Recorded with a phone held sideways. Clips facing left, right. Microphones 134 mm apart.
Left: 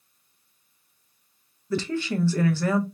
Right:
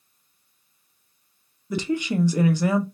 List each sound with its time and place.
1.7 s a woman speaking: 15° right (ahead or behind), 0.6 m